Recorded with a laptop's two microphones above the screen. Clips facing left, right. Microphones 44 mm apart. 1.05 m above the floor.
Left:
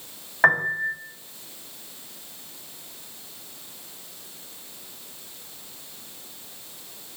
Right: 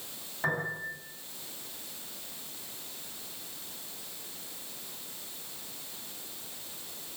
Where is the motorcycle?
No motorcycle in this recording.